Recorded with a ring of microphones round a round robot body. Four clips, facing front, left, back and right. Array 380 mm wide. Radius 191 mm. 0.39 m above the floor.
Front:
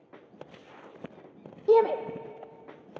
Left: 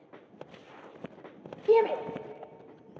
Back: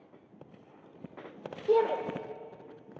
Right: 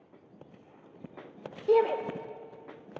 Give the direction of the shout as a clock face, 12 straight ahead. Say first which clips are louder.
Left 1 dB, front 5 dB; 11 o'clock.